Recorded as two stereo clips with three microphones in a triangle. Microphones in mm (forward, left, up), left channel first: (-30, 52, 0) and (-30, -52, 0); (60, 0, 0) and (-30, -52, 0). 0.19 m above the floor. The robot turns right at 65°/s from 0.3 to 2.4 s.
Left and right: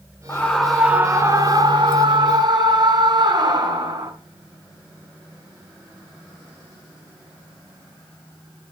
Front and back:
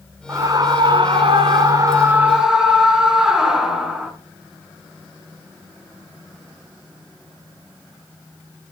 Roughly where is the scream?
Behind left.